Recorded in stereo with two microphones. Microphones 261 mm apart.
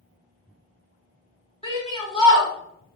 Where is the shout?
20° left (ahead or behind), 1.7 m.